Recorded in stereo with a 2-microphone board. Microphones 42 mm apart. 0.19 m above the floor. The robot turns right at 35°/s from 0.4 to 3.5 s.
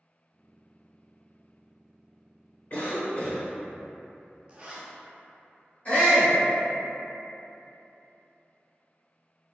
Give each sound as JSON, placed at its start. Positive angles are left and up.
{"t": 2.7, "sound": "a cough", "side_deg": 45, "distance_m": 1.5}
{"t": 4.5, "sound": "a zipper", "side_deg": -30, "distance_m": 0.6}
{"t": 5.8, "sound": "a shout", "side_deg": 35, "distance_m": 1.8}